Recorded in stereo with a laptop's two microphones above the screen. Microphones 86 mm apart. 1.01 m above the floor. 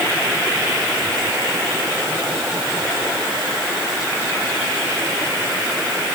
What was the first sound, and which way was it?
Only background noise.